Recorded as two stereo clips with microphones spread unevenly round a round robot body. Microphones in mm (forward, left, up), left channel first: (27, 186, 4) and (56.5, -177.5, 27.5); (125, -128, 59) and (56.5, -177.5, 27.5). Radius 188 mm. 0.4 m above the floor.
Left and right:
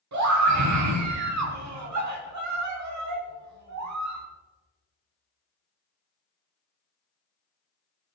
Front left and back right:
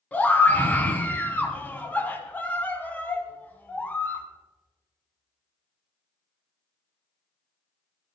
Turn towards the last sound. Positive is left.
turn(degrees=-40)